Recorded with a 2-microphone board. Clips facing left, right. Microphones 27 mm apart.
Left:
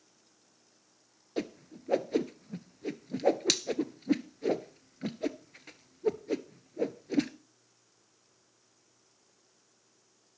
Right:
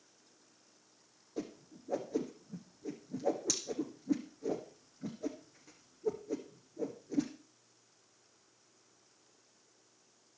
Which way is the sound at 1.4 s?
75° left (ahead or behind).